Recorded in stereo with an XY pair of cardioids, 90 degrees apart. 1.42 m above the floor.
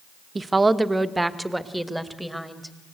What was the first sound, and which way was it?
A woman speaking, 30° right.